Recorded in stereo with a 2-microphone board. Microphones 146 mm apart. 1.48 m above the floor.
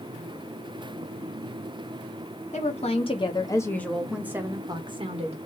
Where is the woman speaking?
50° left (ahead or behind), 1.0 m; by 5.4 s 45° right (ahead or behind), 1.0 m.